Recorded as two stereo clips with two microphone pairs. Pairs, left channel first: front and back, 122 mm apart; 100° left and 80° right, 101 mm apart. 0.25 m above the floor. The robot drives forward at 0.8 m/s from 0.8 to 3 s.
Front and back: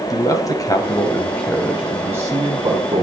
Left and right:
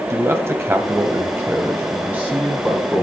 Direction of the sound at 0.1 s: 35° right.